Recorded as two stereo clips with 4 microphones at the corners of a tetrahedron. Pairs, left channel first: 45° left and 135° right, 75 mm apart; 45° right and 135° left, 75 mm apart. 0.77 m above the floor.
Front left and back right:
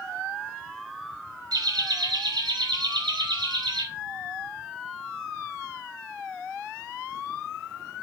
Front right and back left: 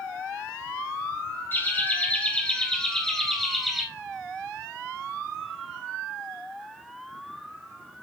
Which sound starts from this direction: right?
Laughter, at 1.5 s.